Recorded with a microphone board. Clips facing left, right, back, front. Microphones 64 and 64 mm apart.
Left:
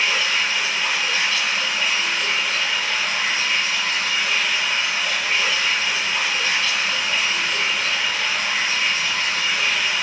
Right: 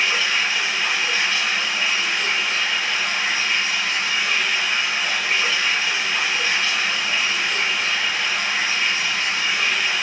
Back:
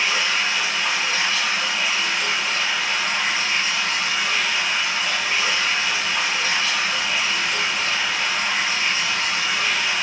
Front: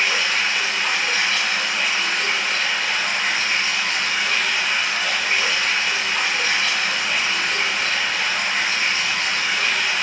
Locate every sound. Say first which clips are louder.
0.0 s running water: even, front 1 dB; 25° right, 1.7 m